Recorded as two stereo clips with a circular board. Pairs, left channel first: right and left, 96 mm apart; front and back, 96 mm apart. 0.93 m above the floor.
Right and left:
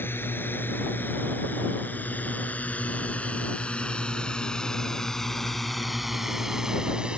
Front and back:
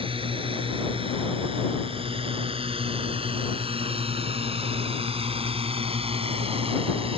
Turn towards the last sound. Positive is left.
turn(degrees=170)